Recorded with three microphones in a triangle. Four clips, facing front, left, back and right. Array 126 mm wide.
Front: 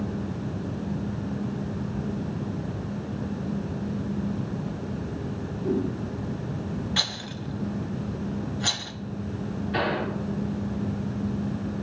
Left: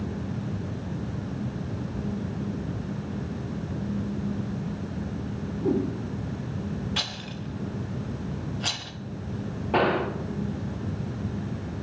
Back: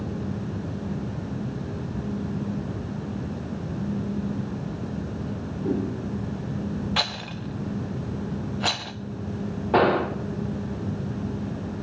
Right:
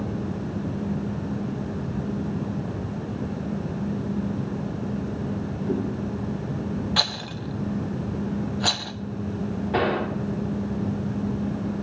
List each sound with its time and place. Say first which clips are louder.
5.6 s a whoosh: left 3 dB, even; 95° left, 4 m
7.0 s a rattle: right 6 dB, back 3 dB; 140° right, 0.8 m
9.7 s a gunshot: left 1 dB, back 8 dB; 170° left, 1.1 m